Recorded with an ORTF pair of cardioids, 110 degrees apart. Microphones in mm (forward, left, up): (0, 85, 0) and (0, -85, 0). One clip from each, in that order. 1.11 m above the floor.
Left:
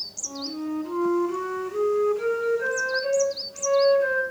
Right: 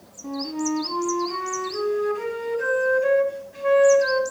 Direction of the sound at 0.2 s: 60° right.